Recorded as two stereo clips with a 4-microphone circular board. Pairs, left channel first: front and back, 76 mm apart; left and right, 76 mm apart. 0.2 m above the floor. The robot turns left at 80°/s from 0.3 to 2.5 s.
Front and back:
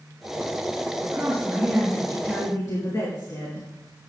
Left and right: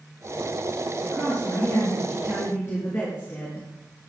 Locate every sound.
1.0 s a woman speaking: 160° left, 3.5 m; by 3.7 s 40° left, 3.5 m